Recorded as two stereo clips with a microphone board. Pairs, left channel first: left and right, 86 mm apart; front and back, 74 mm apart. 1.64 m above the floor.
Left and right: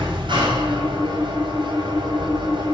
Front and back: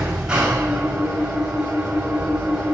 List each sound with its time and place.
0.0 s an engine running: 100° right, 5 m